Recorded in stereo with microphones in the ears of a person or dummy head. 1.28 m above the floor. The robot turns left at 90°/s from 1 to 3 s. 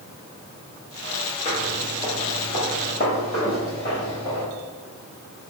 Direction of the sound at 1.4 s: 25° left (ahead or behind).